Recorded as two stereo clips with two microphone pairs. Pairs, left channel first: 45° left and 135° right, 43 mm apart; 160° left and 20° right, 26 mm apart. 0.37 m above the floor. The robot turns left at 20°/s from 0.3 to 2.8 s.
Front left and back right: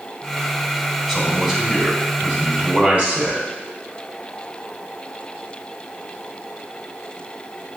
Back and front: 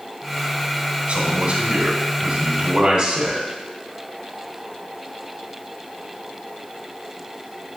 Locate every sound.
1.1 s a man speaking: 50° right, 3 m; by 3.5 s 85° right, 3 m